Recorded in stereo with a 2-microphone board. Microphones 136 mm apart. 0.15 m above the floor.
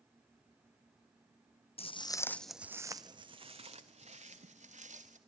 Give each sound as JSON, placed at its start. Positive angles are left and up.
{"t": 1.8, "sound": "footsteps", "side_deg": 50, "distance_m": 0.6}